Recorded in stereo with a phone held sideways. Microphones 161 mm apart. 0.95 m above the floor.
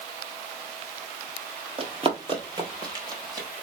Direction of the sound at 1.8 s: 35° right (ahead or behind).